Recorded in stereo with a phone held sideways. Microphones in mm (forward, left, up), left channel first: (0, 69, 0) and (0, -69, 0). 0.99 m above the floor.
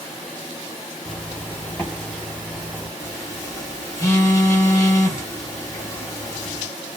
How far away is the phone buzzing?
About 1.3 m.